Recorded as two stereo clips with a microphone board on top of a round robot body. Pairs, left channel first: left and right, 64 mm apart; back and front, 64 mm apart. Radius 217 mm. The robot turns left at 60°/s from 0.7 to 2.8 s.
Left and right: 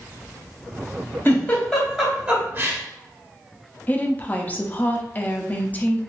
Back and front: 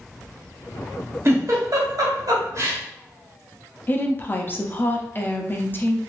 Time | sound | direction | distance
1.2 | a giggle | 45° left | 1.9 m
3.9 | a woman speaking | 140° left | 1.0 m